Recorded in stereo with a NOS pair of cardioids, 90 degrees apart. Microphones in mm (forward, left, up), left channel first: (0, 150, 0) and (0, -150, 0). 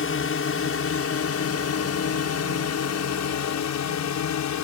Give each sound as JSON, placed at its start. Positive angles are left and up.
{"t": 0.0, "sound": "a drone", "azimuth_deg": 45}